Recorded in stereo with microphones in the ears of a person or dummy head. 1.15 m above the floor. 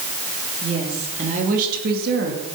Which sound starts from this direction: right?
A woman speaking, at 0.6 s.